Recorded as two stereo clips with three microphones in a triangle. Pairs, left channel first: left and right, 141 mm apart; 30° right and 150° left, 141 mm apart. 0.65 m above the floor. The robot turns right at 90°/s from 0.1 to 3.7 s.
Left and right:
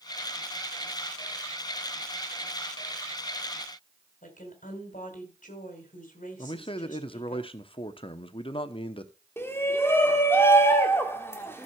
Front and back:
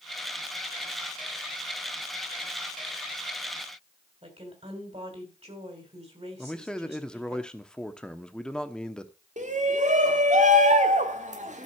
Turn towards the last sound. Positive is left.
turn(degrees=160)